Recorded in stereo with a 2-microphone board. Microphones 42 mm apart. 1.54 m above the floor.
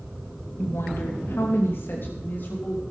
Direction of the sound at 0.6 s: 75° left (ahead or behind).